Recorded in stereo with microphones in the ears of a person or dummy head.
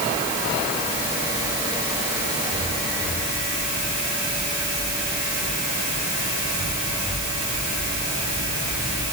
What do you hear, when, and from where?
Only background noise.